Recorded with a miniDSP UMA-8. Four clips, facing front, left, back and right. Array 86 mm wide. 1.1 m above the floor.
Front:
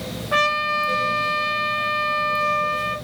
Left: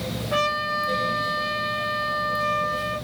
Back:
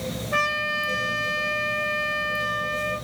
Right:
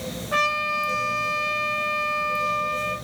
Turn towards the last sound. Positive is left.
turn(degrees=5)